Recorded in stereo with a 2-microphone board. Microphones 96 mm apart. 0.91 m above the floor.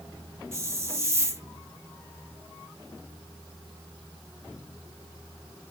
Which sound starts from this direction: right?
A hiss, at 0.5 s.